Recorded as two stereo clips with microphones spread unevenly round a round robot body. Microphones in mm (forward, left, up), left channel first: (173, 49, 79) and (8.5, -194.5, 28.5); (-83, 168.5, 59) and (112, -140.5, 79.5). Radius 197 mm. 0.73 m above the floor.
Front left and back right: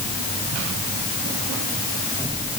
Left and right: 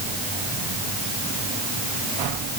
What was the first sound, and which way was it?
Only background noise.